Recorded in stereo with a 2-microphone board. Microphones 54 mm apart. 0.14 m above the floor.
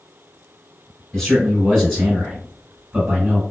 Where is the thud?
No thud in this recording.